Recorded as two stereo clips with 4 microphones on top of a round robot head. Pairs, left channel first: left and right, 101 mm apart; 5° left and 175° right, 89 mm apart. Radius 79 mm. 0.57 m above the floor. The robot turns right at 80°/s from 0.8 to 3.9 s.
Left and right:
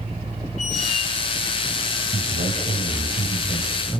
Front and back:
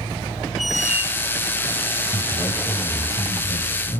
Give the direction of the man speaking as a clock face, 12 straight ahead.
4 o'clock.